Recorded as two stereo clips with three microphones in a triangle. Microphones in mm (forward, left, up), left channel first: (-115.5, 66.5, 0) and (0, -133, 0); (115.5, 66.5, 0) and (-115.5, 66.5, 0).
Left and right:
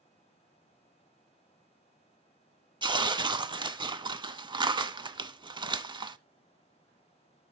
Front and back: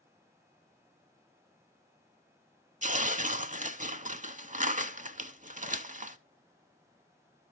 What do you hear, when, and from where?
2.8 s tearing paper: 130° right, 0.5 m